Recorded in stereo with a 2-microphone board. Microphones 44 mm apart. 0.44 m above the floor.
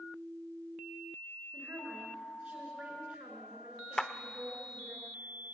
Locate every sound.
1.5 s a woman speaking: 35° right (ahead or behind), 6 m
4.0 s a clap: 15° left (ahead or behind), 0.8 m